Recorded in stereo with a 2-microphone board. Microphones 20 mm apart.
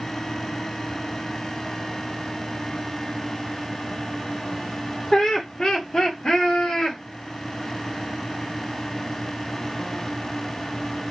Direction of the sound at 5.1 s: 20° left (ahead or behind).